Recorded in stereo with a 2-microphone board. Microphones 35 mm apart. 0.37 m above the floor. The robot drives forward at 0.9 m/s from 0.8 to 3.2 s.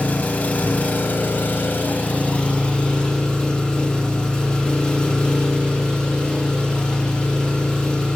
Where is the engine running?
50° left (ahead or behind), 0.9 m; by 8.2 s 25° left (ahead or behind), 1.8 m.